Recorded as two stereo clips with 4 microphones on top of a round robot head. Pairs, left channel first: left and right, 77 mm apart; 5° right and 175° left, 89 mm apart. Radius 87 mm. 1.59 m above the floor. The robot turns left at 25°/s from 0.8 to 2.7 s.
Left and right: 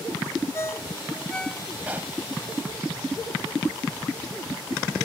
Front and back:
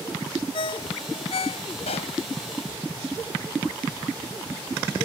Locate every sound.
0.5 s a ringtone: 20° left; by 1.7 s straight ahead
1.9 s a pop: 15° right; by 2.2 s 20° right